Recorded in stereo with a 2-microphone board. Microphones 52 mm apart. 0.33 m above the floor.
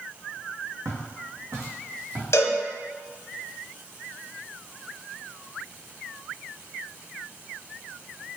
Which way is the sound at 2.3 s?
65° left (ahead or behind).